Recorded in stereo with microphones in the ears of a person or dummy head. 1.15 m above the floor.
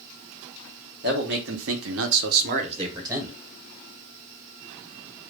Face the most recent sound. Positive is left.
turn(degrees=-15)  # may be behind; listen again after turning